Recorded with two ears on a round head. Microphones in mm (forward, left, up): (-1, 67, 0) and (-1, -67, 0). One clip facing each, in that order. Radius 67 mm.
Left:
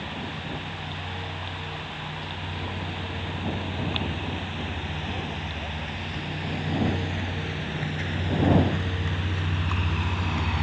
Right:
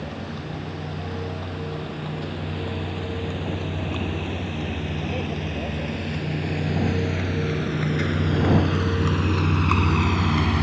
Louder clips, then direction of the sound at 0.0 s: Right 3 dB; 55° right (ahead or behind).